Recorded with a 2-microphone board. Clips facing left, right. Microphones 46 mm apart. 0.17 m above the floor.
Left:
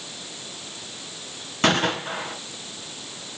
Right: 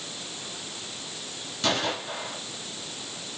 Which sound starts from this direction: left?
A gunshot, at 1.6 s.